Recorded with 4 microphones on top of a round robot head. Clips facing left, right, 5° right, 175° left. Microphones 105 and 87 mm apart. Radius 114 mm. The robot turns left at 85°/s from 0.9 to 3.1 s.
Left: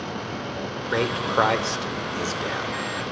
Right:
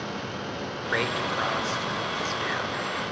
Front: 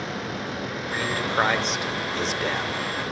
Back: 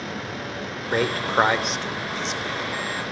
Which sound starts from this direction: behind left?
A man speaking, at 0.9 s.